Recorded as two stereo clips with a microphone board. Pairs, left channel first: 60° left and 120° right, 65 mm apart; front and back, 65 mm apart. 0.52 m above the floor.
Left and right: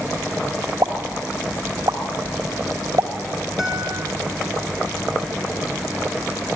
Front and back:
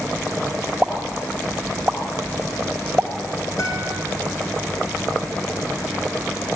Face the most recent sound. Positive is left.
turn(degrees=-30)